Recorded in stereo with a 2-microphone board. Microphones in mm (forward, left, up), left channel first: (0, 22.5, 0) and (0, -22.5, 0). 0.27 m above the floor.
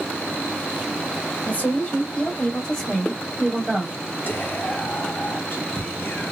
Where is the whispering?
35° left (ahead or behind), 1.8 m.